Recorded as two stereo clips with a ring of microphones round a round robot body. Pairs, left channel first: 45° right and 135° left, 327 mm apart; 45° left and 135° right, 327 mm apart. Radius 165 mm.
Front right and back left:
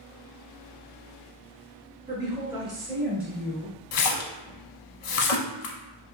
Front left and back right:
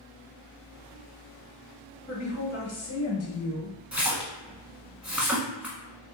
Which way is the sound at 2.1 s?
90° left.